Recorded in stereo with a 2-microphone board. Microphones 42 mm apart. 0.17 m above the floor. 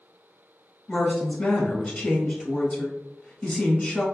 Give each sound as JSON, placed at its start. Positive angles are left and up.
{"t": 0.9, "sound": "a woman speaking", "side_deg": 25, "distance_m": 1.2}